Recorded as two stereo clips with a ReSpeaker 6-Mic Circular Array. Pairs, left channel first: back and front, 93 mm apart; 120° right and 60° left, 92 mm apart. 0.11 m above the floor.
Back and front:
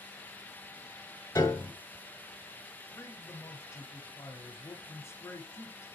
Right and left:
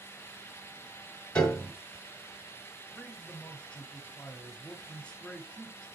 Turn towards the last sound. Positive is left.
turn(degrees=175)